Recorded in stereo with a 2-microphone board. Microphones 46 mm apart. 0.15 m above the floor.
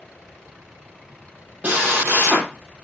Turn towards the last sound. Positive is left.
turn(degrees=-40)  # may be behind; listen again after turning